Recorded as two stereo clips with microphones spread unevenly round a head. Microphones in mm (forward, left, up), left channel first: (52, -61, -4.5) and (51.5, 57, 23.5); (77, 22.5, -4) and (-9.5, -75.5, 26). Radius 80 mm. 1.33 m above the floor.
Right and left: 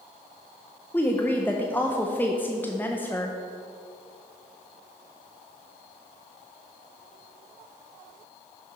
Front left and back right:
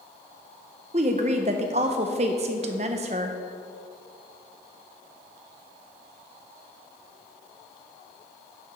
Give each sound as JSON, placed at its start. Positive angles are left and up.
{"t": 0.9, "sound": "a woman speaking", "azimuth_deg": -175, "distance_m": 0.5}